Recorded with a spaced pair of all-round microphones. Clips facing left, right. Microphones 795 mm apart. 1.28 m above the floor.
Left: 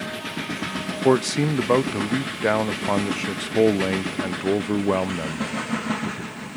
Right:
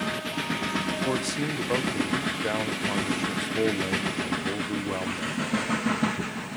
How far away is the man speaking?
About 0.7 m.